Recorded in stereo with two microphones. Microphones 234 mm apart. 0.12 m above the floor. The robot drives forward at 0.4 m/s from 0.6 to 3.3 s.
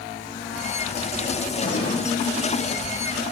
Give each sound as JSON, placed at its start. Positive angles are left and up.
{"t": 1.6, "sound": "an explosion", "side_deg": 20, "distance_m": 5.0}